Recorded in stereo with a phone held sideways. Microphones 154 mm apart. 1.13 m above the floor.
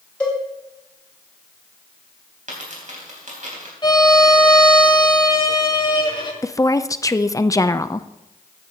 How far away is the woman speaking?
About 0.5 m.